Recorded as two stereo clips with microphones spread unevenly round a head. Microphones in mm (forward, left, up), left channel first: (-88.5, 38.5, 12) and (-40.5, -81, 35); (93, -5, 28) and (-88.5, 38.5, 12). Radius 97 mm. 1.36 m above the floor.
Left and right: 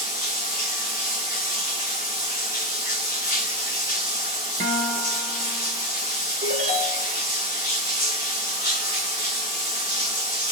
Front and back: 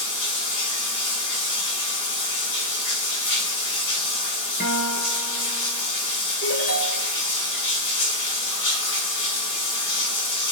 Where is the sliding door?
No sliding door in this recording.